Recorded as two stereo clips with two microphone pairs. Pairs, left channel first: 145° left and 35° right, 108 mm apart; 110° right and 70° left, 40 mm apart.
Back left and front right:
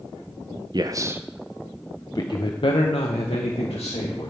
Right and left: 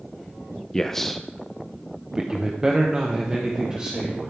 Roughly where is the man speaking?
Ahead right.